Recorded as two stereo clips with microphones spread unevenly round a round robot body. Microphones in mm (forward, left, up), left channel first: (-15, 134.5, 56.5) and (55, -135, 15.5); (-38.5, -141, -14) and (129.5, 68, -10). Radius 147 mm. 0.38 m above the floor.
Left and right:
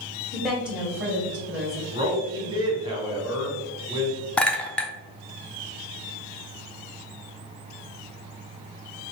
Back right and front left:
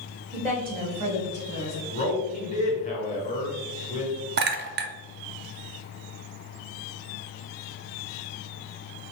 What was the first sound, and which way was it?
A woman speaking, straight ahead.